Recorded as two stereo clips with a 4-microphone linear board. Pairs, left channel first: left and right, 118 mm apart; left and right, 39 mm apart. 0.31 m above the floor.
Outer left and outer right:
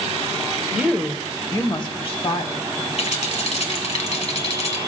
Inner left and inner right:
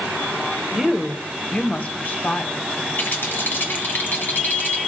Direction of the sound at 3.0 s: 65° left (ahead or behind).